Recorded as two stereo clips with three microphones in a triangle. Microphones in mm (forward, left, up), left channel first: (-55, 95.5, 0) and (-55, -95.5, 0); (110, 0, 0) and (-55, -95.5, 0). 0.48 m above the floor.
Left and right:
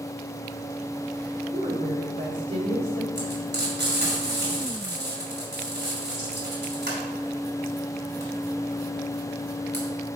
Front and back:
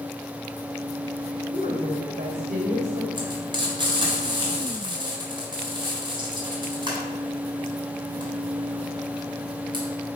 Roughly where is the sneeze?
I don't hear a sneeze.